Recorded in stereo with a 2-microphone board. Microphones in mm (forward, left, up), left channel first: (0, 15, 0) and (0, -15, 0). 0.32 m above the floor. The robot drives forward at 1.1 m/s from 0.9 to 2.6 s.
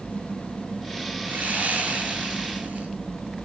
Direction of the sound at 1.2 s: 70° right (ahead or behind).